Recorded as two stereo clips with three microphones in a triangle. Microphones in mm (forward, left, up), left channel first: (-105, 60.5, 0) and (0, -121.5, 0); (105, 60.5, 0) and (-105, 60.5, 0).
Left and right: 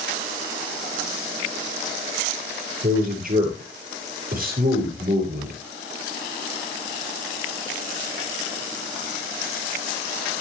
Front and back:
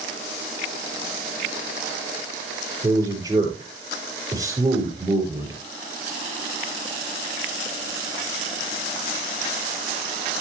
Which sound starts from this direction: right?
A man speaking, at 2.8 s.